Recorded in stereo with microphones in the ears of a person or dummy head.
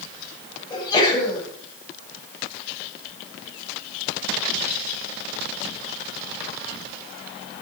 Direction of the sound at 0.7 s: 25° left (ahead or behind).